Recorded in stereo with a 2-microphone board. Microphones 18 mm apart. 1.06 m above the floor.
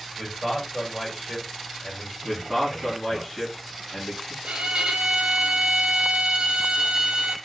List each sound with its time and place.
0.2 s a man speaking: 10° left (ahead or behind), 2.5 m
2.2 s a man speaking: 20° left (ahead or behind), 2 m
4.4 s a violin: 70° right (ahead or behind), 0.8 m